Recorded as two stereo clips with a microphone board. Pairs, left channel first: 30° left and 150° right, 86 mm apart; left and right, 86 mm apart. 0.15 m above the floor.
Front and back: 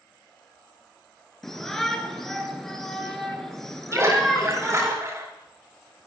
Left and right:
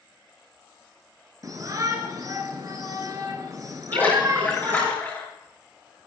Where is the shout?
55° right, 2 m.